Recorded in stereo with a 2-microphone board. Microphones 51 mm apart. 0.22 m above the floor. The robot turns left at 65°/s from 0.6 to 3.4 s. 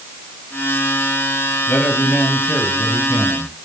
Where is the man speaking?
60° left, 4.5 m; by 3.6 s 50° right, 4.5 m.